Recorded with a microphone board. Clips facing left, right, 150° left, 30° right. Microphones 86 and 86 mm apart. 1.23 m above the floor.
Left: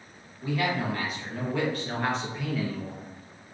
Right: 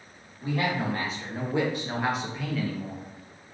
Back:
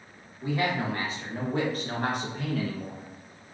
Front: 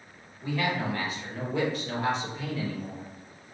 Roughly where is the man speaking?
Behind right.